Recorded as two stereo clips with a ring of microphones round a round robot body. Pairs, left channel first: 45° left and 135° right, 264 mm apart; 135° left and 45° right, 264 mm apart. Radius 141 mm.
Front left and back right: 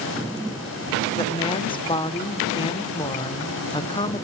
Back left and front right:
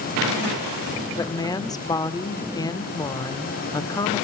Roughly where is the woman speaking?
Left.